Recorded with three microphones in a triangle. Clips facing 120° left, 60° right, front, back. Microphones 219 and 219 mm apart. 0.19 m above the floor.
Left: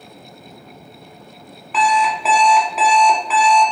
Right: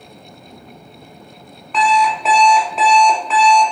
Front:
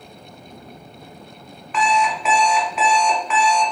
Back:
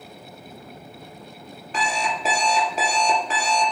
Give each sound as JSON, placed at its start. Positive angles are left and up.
{"t": 1.7, "sound": "an alarm clock", "azimuth_deg": -155, "distance_m": 0.8}